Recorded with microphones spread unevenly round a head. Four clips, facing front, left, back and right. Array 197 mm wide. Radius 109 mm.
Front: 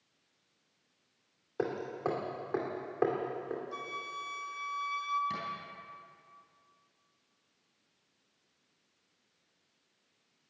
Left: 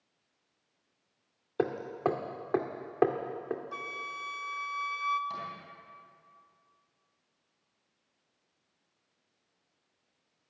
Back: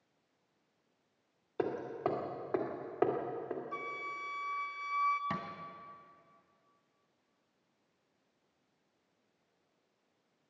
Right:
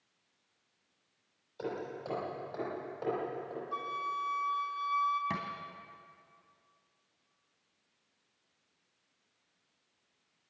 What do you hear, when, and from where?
1.6 s hammering: 90° left, 2 m
3.7 s a flute: 115° left, 0.6 m
5.3 s a thud: 115° right, 2.5 m